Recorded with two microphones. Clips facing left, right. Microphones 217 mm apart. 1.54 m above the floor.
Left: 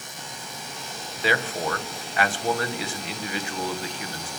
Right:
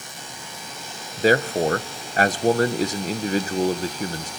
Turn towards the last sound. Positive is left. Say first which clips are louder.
# right 8 dB
turn(degrees=-40)  # may be behind; listen again after turning